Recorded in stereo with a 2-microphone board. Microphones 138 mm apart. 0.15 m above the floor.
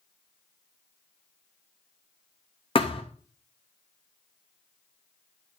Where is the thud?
40° left (ahead or behind), 2.5 m.